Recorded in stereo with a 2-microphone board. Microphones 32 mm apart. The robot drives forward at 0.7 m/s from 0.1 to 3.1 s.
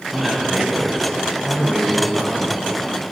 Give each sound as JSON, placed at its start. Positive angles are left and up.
{"t": 0.1, "sound": "a man speaking", "side_deg": -5, "distance_m": 1.4}